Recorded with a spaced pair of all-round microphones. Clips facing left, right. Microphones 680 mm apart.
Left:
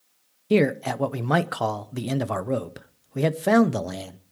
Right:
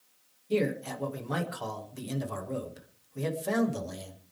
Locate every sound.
0.5 s a man speaking: 90° left, 0.9 m